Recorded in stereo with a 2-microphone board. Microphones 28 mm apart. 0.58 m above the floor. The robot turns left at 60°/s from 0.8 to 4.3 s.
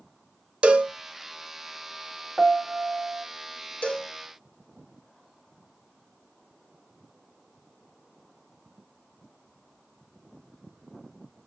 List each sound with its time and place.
0.6 s a cowbell: 45° right (ahead or behind), 0.5 m; by 0.9 s 50° right (ahead or behind), 0.5 m
2.4 s a piano: 10° right, 0.8 m; by 3.2 s 65° right, 0.8 m
3.8 s a cowbell: 55° left (ahead or behind), 1.8 m; by 4.1 s 40° left (ahead or behind), 1.8 m